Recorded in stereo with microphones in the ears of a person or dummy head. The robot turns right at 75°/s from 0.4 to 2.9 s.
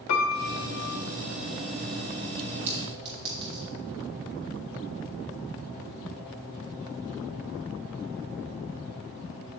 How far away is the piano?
About 0.7 m.